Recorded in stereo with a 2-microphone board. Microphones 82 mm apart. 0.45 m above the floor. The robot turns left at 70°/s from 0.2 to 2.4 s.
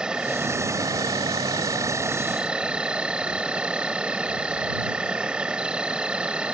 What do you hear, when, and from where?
0.0 s an insect: 10° right; by 6.5 s 165° right